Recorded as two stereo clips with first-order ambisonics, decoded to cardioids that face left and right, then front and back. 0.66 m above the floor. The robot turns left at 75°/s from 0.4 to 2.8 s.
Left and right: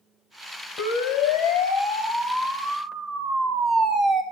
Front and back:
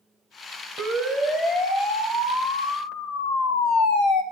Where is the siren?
125° left, 4.5 m; by 4.2 s 35° right, 2 m.